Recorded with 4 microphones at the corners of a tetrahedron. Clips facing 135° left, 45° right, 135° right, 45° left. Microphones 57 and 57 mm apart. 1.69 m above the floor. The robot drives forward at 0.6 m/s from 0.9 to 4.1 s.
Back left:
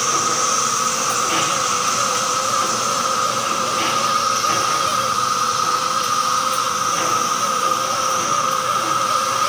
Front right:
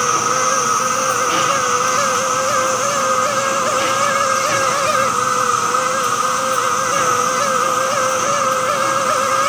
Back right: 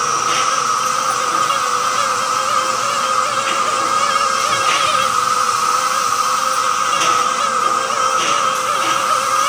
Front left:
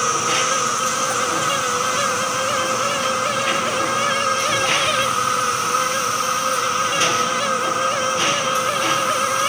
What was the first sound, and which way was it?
An insect, 100° right.